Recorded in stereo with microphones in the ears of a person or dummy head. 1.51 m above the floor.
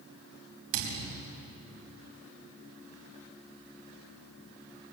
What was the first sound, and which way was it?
A thud, 80° right.